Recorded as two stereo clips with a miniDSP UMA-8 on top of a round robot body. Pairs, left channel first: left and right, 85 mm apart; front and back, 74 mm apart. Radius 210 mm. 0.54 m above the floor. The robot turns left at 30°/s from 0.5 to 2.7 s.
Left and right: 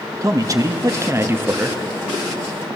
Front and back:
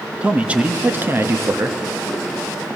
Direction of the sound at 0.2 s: 115° right.